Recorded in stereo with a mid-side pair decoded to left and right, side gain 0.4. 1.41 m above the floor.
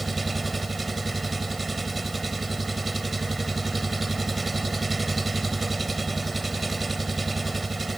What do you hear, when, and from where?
0.0 s an engine running: 30° right